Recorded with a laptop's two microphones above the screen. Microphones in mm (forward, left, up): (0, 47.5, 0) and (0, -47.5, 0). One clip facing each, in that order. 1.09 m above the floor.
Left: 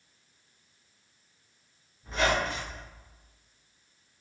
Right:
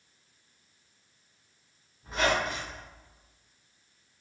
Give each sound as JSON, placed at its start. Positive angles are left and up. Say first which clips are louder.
{"t": 2.0, "sound": "a squeak", "louder": "even", "side_deg": -10, "distance_m": 1.6}